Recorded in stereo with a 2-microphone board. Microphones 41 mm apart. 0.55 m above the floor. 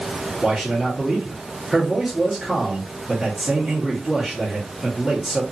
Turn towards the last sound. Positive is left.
turn(degrees=-5)  # may be behind; listen again after turning